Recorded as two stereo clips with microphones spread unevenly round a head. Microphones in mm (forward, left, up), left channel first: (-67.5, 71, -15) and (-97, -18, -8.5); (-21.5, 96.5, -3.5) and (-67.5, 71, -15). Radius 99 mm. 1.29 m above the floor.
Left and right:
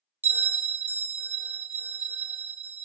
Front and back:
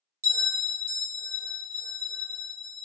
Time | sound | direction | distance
0.2 | a bell | 170° right | 0.5 m